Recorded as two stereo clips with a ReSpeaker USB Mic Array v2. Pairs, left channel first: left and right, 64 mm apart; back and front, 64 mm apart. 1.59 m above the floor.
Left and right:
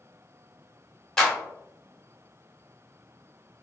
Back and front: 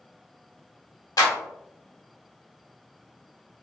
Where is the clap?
170° left, 1.0 m.